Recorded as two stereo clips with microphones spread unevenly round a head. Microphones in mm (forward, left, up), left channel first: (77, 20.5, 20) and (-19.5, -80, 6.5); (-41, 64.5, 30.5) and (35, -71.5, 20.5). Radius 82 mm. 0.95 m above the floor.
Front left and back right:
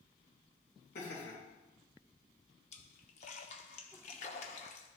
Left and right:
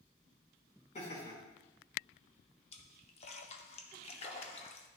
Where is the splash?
75° left, 0.7 m.